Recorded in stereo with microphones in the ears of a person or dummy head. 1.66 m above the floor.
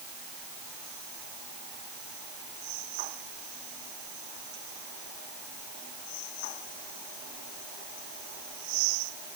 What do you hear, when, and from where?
Only background noise.